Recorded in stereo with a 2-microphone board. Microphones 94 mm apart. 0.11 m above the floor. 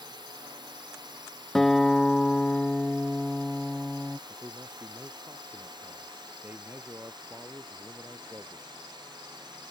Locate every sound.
0.0 s a drone: 50° right (ahead or behind)
1.6 s a guitar: 5° left (ahead or behind)
4.3 s a man speaking: 20° right (ahead or behind)